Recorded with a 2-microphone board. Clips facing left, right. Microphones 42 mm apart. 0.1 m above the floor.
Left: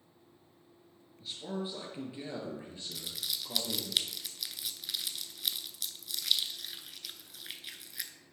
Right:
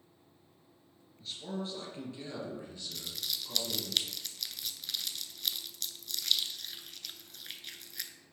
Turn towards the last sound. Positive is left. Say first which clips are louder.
# even
turn(degrees=5)  # may be behind; listen again after turning